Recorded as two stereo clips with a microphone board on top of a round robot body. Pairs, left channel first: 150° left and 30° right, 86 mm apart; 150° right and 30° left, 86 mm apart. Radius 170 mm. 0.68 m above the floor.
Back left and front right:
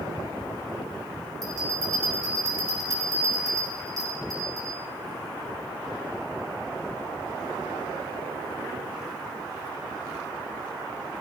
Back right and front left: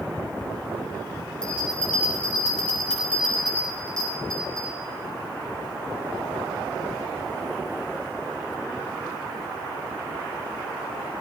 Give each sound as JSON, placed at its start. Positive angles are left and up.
{"t": 1.4, "sound": "a bell", "azimuth_deg": -70, "distance_m": 5.0}